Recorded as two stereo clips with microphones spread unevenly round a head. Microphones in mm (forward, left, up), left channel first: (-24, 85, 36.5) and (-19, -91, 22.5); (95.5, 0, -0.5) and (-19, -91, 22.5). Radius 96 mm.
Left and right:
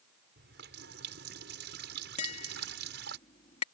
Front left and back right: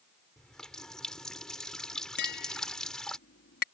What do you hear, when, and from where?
0.4 s a running tap: 50° right
2.2 s tapping: 35° left